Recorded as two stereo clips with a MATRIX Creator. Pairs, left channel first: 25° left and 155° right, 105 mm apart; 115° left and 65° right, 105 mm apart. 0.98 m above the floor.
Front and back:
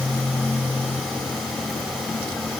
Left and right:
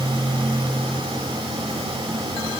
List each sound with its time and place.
Only background noise.